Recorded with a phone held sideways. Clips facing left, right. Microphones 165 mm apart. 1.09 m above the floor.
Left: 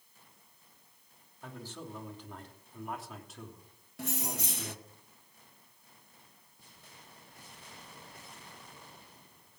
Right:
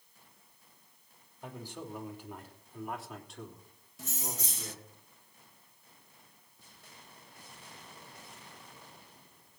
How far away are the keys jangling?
About 0.7 m.